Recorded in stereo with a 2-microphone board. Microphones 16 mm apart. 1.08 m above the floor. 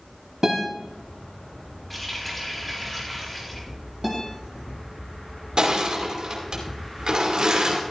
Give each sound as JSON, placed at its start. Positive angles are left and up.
{"t": 0.4, "sound": "a guitar", "side_deg": -35, "distance_m": 3.5}
{"t": 1.9, "sound": "a running tap", "side_deg": 5, "distance_m": 4.0}
{"t": 4.0, "sound": "a guitar", "side_deg": -10, "distance_m": 2.5}
{"t": 5.6, "sound": "crushing", "side_deg": -65, "distance_m": 2.5}